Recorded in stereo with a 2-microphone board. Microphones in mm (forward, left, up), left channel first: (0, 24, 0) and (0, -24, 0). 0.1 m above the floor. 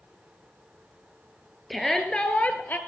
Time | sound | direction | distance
1.7 | a shout | centre (ahead or behind) | 1.8 m